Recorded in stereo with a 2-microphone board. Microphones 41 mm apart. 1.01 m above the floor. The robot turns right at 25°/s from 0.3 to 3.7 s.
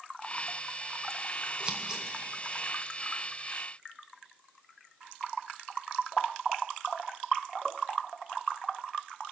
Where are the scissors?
30° right (ahead or behind), 1.3 m; by 2.1 s 20° right (ahead or behind), 1.3 m.